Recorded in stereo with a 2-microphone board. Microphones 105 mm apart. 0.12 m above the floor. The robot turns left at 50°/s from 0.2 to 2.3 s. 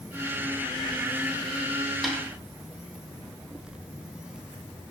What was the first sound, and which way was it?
A snare drum, centre (ahead or behind).